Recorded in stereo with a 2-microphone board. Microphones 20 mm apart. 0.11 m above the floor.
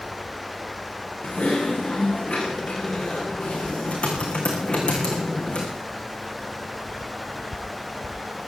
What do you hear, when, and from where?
1.2 s typing on a keyboard: 65° left (ahead or behind), 4.5 m